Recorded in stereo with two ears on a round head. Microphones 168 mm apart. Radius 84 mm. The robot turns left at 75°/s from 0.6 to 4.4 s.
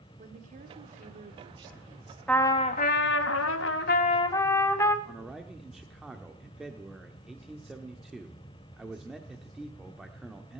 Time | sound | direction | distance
0.2 | a woman speaking | 70° right | 1.5 m
2.3 | a trumpet | 175° left | 0.9 m
5.0 | a man speaking | centre (ahead or behind) | 1.0 m